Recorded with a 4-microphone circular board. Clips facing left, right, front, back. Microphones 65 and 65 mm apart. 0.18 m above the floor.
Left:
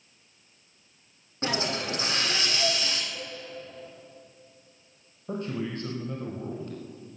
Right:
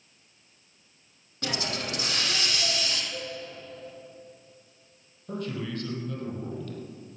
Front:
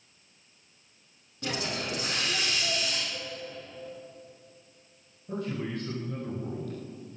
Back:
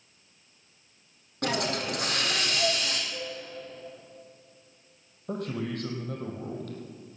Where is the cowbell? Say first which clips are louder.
Right 3 dB, back 2 dB; 100° right, 1.6 m.